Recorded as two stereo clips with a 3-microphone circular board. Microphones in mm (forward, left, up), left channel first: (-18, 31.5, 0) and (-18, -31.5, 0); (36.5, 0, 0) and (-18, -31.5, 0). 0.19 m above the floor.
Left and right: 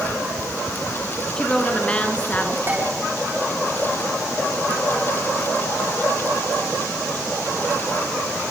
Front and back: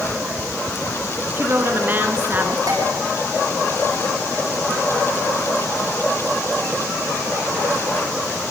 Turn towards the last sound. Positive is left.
turn(degrees=-145)